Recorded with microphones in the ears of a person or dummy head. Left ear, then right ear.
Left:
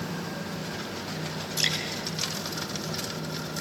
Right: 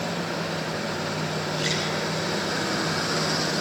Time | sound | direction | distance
1.6 | dripping | 65° left (ahead or behind) | 7.5 m